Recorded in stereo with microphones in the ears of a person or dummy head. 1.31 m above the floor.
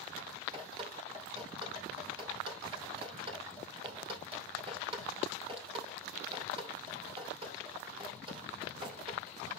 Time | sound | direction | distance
0.5 | dripping | 25° right (ahead or behind) | 2.5 m